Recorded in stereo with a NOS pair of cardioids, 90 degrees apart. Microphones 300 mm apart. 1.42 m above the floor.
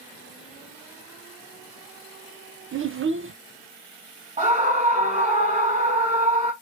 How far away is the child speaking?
About 0.8 m.